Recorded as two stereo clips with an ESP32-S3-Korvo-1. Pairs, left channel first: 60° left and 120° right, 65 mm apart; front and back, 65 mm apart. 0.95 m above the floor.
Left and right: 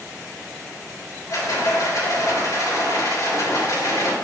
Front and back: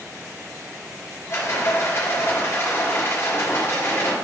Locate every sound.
1.3 s a rattle: 40° left, 3.5 m